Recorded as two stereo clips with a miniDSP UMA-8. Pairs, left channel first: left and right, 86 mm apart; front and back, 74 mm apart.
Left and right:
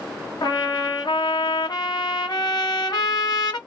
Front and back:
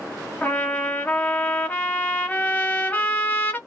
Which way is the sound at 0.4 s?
65° left.